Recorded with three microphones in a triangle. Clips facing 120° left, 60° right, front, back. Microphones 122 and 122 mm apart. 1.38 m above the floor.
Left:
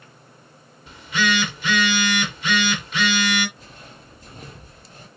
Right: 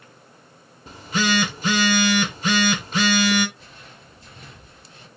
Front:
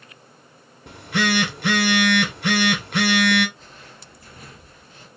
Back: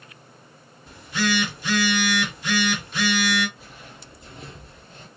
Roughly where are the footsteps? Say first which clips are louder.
Left 2 dB, back 1 dB; left.